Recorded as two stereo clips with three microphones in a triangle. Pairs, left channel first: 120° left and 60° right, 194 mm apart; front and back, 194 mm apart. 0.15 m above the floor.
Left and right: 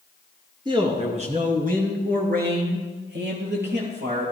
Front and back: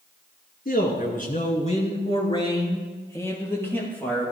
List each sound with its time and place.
0.7 s a man speaking: straight ahead, 2.5 m; by 4.3 s 85° right, 5 m